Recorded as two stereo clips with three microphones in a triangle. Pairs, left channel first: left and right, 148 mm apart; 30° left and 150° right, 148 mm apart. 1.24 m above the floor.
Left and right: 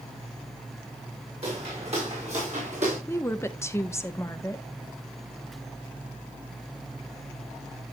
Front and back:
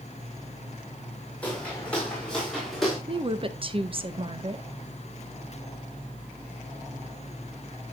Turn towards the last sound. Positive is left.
turn(degrees=160)